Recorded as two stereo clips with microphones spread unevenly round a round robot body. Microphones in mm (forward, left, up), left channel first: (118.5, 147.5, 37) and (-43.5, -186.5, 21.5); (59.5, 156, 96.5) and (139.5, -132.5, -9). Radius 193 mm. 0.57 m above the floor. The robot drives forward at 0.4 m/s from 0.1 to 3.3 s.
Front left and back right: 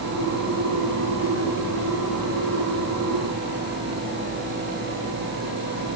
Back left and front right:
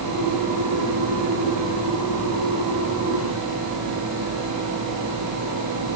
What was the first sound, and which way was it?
Only background noise.